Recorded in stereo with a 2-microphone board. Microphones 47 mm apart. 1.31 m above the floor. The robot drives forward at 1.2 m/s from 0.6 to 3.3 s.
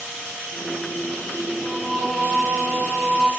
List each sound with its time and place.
1.6 s singing: centre (ahead or behind), 3 m